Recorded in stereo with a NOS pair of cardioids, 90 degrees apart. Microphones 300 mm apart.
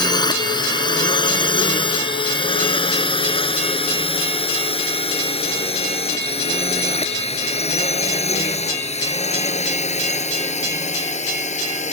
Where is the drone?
15° left; by 11.9 s 20° left.